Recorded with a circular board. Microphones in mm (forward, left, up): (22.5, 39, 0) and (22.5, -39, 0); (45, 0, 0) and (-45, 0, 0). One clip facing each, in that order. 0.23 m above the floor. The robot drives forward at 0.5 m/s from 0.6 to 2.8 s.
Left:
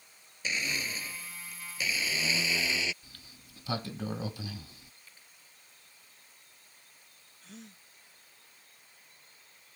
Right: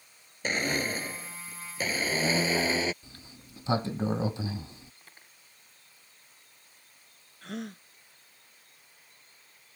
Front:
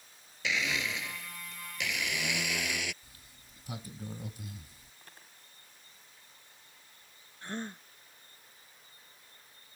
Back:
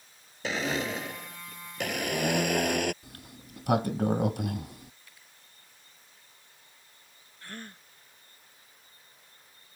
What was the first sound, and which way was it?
A blender, 130° right.